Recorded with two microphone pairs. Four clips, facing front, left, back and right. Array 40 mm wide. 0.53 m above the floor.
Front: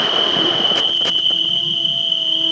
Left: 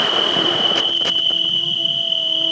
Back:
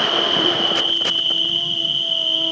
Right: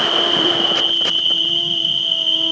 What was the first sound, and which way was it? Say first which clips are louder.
An insect: right 1 dB, front 1 dB; 105° right.